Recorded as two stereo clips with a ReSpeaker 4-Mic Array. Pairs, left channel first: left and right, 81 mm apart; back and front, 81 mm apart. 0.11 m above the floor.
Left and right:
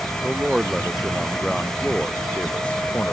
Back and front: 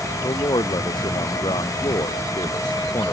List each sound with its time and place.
0.2 s a man speaking: 170° right; by 3.1 s 160° left